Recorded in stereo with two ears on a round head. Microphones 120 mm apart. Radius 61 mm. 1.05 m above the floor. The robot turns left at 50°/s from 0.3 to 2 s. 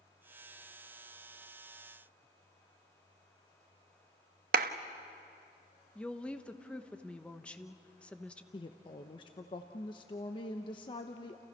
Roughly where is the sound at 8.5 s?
Left.